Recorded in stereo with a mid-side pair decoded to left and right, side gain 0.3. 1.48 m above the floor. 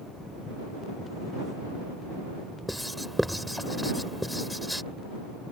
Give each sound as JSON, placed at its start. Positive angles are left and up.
{"t": 2.7, "sound": "writing", "azimuth_deg": 0}